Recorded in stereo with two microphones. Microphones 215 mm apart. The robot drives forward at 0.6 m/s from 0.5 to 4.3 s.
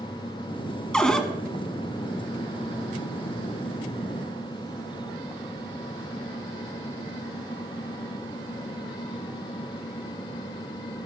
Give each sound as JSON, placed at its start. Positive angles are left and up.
{"t": 0.9, "sound": "a cupboard door", "side_deg": 5, "distance_m": 0.6}